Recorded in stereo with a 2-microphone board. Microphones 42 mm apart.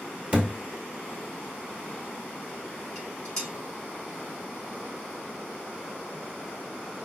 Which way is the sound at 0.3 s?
30° right (ahead or behind).